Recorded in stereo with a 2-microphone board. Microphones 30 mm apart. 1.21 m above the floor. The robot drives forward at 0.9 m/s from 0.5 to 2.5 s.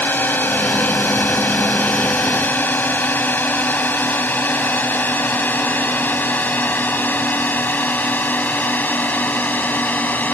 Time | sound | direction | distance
0.0 | a drone | 75° left (ahead or behind) | ?